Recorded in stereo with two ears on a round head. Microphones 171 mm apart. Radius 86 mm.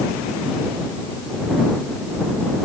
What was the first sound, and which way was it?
Only background noise.